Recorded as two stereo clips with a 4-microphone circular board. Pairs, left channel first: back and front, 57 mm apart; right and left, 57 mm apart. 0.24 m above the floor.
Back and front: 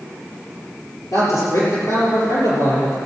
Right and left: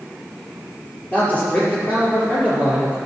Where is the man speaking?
155° right, 5 m.